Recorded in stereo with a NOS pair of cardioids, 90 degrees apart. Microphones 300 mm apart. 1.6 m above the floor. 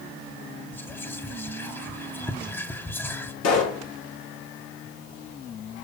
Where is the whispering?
5° left, 1.7 m.